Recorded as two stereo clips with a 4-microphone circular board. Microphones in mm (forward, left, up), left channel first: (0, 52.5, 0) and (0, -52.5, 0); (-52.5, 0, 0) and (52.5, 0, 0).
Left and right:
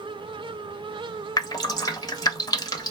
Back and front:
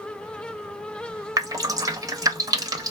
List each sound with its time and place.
1.4 s dripping: 45° left, 0.6 m